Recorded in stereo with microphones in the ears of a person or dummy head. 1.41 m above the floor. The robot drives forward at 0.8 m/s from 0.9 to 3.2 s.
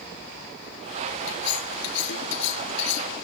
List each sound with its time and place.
1.3 s cutlery clinking: 70° left (ahead or behind); by 3.2 s 75° left (ahead or behind)